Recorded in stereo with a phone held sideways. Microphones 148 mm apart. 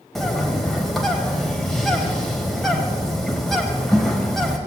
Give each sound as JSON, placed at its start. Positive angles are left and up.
{"t": 0.1, "sound": "a bird", "side_deg": 0, "distance_m": 2.5}